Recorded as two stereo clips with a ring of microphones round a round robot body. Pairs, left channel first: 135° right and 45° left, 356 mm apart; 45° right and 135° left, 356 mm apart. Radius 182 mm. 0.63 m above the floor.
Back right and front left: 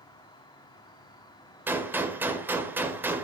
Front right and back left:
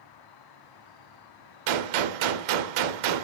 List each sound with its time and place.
0.0 s an insect: 55° right, 0.9 m
1.7 s a gunshot: 130° left, 1.3 m